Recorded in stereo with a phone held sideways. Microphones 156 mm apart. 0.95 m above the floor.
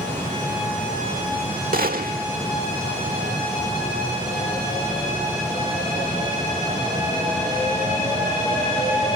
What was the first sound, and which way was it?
A gunshot, 80° right.